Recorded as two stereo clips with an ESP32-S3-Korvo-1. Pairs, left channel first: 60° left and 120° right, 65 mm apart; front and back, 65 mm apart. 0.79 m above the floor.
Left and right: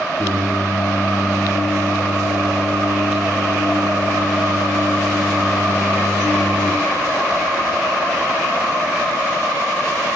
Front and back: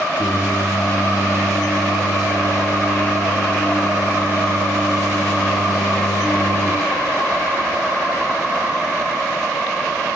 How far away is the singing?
About 4 m.